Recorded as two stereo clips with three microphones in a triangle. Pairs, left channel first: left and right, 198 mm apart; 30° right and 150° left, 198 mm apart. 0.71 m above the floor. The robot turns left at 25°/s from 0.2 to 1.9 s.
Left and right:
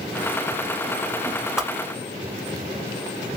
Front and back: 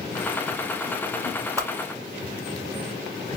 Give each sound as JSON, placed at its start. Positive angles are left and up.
{"t": 1.6, "sound": "a whoosh", "azimuth_deg": -170, "distance_m": 0.8}